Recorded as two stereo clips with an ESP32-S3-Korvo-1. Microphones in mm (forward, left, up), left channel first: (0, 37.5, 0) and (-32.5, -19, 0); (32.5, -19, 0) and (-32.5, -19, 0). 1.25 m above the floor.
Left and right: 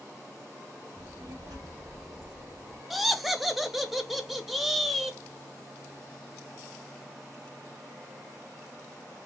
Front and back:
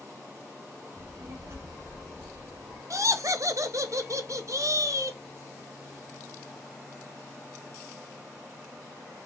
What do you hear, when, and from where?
1.0 s a child speaking: 135° right, 2.5 m; by 2.8 s 170° right, 2 m
2.9 s laughter: 150° left, 0.9 m